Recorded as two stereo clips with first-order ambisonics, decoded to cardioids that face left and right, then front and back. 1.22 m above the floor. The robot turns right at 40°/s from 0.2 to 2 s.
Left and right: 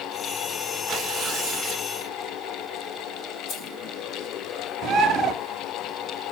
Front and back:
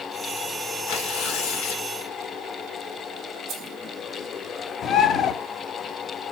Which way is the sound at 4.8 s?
45° right.